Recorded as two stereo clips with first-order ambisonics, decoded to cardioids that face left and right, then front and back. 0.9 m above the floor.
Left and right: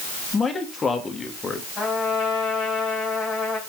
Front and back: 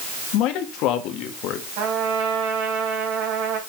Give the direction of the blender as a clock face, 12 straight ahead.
I don't hear a blender.